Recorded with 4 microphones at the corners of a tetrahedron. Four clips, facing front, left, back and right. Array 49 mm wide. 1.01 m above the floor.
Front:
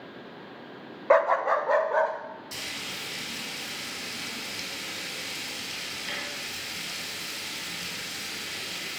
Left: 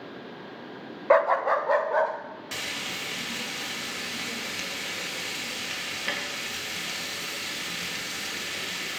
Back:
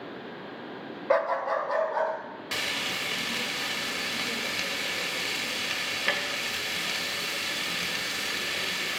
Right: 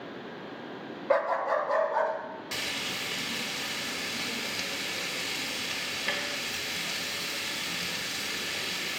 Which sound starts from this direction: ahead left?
A dog barking, at 1.1 s.